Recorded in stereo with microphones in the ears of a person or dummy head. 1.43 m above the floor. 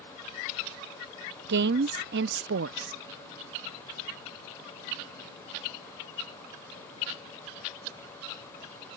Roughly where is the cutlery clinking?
No cutlery clinking in this recording.